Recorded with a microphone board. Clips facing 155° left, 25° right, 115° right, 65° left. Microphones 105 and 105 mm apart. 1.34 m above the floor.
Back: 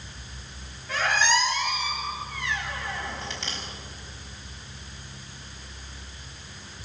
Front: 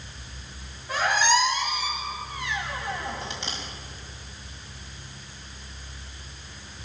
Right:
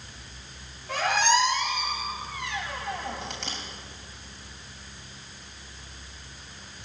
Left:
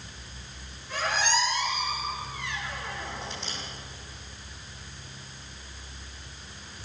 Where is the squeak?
100° right, 6 m.